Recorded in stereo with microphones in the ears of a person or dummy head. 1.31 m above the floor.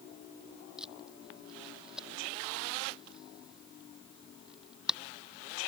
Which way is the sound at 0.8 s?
5° right (ahead or behind).